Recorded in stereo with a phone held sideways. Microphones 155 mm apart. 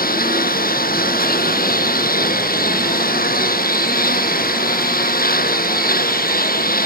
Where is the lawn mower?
70° left (ahead or behind).